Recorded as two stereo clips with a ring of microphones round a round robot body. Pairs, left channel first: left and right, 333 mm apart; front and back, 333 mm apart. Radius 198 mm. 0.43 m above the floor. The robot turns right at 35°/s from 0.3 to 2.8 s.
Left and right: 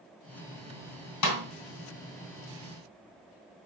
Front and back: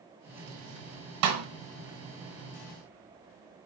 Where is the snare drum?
130° left, 1.2 m; by 1.4 s 140° left, 1.2 m.